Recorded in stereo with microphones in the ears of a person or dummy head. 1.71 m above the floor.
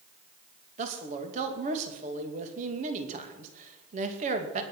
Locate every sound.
0.8 s a man speaking: 40° right (ahead or behind), 2.5 m